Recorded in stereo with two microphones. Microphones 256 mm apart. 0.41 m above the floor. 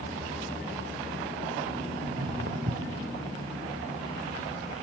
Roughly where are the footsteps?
Right.